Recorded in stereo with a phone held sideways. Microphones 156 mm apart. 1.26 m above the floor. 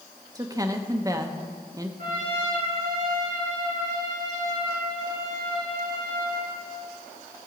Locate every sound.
0.3 s a woman speaking: 20° right (ahead or behind), 0.9 m
2.0 s a trumpet: 60° right (ahead or behind), 4.5 m